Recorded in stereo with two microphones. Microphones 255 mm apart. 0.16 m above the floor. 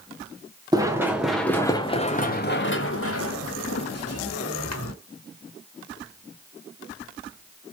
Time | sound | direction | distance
0.7 | running footsteps | 15° right (ahead or behind) | 1.1 m